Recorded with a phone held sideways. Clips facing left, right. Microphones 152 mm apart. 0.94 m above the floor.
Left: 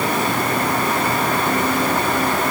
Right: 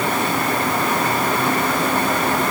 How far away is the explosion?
I don't hear an explosion.